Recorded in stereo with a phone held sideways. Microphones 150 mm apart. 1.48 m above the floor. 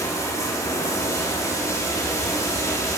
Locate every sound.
0.0 s running water: 20° left (ahead or behind), 2 m